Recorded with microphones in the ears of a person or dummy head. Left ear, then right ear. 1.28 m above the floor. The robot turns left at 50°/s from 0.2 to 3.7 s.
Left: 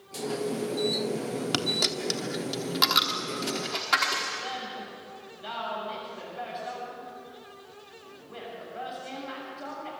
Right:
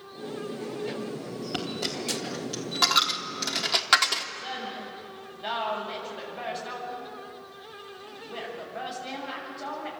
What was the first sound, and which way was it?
A dropped coin, 55° left (ahead or behind).